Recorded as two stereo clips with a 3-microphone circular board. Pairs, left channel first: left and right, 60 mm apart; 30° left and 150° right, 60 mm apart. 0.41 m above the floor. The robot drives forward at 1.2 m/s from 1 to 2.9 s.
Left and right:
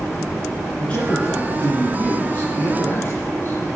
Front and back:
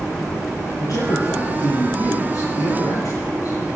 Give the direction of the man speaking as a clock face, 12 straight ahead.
11 o'clock.